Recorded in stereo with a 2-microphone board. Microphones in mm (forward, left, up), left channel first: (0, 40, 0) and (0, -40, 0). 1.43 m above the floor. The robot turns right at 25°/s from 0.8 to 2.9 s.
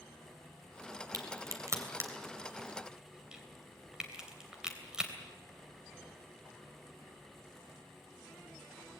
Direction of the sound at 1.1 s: 50° right (ahead or behind).